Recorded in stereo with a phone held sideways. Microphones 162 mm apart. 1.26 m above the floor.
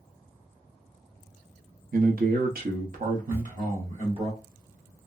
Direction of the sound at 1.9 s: 60° right (ahead or behind).